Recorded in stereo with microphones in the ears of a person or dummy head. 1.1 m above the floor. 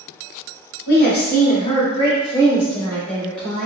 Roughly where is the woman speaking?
Left.